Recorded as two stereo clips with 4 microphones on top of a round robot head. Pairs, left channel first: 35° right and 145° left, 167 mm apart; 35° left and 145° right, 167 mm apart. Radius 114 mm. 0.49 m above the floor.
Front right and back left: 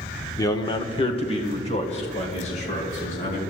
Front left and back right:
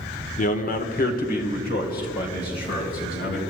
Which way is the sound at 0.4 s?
25° left.